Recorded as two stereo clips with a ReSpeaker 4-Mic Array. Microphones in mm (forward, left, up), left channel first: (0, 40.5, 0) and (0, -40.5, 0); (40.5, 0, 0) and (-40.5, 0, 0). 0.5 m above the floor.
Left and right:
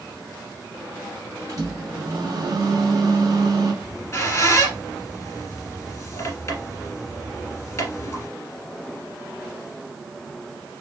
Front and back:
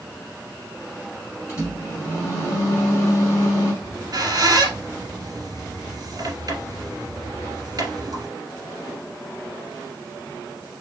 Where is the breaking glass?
I don't hear breaking glass.